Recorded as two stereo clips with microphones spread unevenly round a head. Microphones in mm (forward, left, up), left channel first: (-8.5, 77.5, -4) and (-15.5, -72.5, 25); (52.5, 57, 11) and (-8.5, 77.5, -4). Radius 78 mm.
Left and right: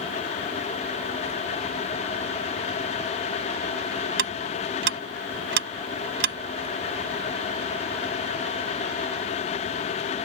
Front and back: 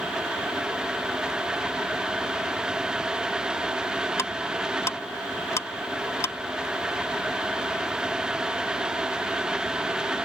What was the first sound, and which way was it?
Ticking, 85° right.